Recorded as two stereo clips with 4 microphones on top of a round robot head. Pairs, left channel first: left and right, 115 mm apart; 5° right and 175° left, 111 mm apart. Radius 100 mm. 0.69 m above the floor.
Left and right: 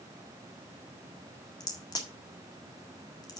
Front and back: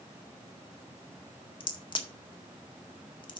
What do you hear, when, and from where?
1.6 s a crack: 35° left, 1.7 m